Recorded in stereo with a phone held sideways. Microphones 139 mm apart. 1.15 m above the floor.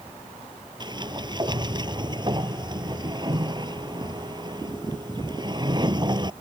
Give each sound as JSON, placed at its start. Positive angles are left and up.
{"t": 0.8, "sound": "a sliding door", "side_deg": -35}